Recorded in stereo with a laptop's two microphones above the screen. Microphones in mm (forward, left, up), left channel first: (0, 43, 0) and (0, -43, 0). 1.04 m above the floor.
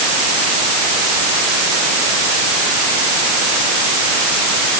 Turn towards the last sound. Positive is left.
No sound to turn to.